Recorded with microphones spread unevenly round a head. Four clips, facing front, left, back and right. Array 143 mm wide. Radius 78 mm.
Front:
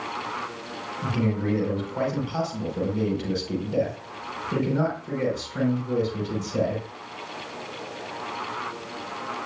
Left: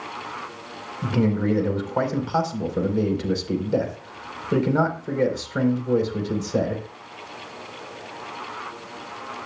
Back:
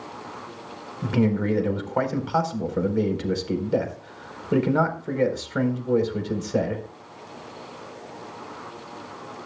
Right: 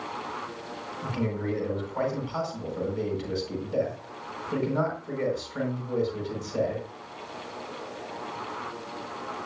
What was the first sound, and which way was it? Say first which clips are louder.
A man speaking: left 9 dB, back 4 dB; 135° left.